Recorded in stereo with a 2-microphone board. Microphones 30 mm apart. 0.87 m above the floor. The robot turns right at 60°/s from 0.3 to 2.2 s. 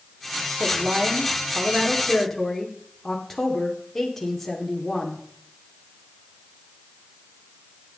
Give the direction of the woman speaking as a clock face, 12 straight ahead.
3 o'clock.